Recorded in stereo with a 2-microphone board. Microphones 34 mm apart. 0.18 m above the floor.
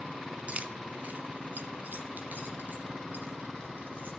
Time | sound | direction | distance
0.5 | keys jangling | 40° right (ahead or behind) | 1.2 m